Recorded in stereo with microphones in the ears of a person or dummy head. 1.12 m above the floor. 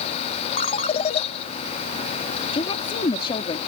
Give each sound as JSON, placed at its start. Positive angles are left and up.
{"t": 0.6, "sound": "a ringtone", "side_deg": 30}
{"t": 2.5, "sound": "a woman speaking", "side_deg": 25}